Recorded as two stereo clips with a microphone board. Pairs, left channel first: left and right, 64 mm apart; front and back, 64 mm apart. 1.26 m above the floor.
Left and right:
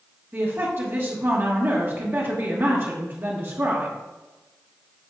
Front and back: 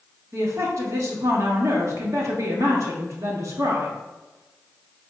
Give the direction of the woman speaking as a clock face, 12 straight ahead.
5 o'clock.